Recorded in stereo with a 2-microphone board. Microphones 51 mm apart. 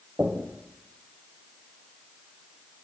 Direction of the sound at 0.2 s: 40° right (ahead or behind).